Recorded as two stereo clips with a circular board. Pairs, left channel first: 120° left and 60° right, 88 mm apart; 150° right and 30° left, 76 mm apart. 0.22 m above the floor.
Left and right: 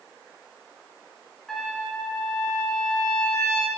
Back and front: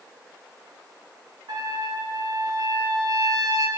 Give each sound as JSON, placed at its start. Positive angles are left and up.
{"t": 1.5, "sound": "a trumpet", "azimuth_deg": 35, "distance_m": 1.4}